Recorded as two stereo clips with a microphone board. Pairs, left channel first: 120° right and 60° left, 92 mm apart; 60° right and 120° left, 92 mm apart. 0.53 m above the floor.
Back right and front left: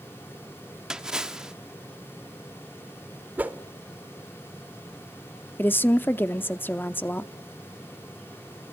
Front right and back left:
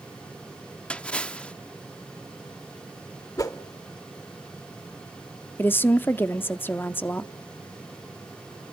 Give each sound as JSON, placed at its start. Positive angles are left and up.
{"t": 0.9, "sound": "a splash", "azimuth_deg": -5, "distance_m": 0.6}
{"t": 3.4, "sound": "a whoosh", "azimuth_deg": -10, "distance_m": 0.9}
{"t": 5.6, "sound": "a woman speaking", "azimuth_deg": -90, "distance_m": 0.7}